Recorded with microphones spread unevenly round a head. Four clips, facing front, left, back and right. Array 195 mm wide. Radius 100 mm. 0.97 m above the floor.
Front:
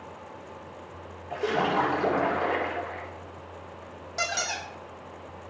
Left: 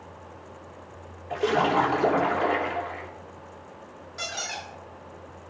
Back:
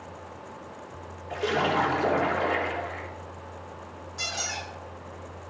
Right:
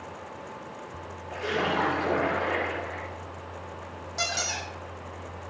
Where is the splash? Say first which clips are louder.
Left 5 dB, even; 85° left, 3 m.